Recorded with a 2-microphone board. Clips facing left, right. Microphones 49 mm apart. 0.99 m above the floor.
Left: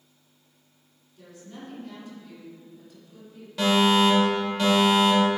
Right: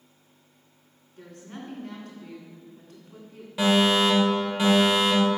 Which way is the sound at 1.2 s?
55° right (ahead or behind).